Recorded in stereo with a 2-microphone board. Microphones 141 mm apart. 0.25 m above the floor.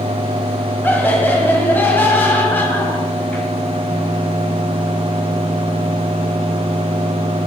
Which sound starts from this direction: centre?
Laughter, at 0.8 s.